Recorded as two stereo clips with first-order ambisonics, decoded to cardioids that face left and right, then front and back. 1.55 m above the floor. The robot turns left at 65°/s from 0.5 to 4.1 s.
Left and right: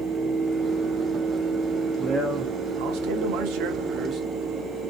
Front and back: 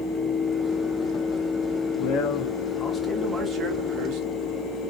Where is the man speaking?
15° right, 1.6 m; by 4.2 s 155° right, 1.6 m.